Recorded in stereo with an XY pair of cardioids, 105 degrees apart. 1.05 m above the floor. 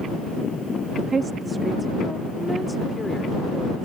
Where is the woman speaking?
50° right; by 3.9 s 20° left.